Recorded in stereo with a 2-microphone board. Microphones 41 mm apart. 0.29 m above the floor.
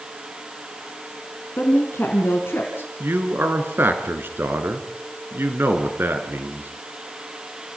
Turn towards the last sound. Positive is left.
turn(degrees=-60)  # may be behind; listen again after turning